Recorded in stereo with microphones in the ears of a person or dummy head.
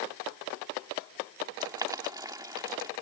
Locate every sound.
1.6 s boiling: 15° right (ahead or behind)